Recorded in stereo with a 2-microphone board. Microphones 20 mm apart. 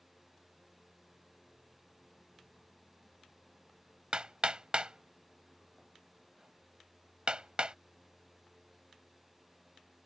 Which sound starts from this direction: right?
Hammering, at 4.1 s.